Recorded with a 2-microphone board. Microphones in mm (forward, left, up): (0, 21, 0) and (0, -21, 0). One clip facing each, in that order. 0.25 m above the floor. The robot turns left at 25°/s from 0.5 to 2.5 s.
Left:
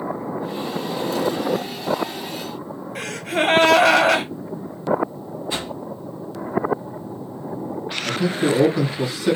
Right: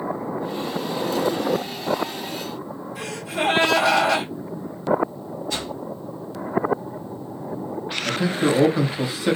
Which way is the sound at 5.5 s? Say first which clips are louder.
Left 2 dB; 25° left (ahead or behind).